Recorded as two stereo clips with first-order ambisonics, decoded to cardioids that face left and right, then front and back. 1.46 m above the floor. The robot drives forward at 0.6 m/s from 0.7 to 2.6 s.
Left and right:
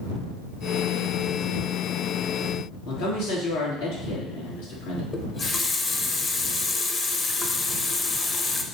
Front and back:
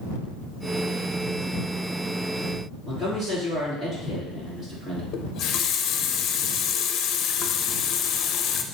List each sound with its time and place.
2.9 s a man speaking: 105° left, 3.5 m
5.1 s a running tap: 25° left, 0.6 m